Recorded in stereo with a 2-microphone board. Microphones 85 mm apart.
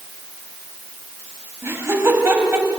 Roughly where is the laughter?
Right.